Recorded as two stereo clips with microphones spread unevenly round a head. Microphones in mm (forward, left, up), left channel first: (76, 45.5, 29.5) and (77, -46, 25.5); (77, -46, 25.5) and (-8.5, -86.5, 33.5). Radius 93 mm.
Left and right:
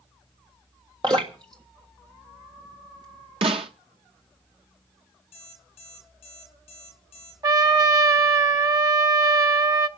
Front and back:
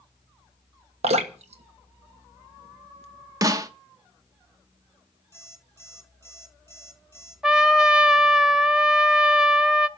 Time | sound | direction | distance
1.0 | dripping | 155° right | 1.3 m
3.4 | a snare drum | 115° right | 1.0 m
5.3 | an alarm clock | 105° left | 7 m
7.4 | a trumpet | 80° right | 1.1 m